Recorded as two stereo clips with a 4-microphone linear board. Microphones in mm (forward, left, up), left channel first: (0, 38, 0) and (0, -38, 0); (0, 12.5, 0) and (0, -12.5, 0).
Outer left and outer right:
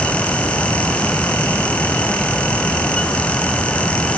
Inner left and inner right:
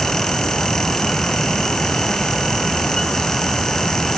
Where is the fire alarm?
No fire alarm in this recording.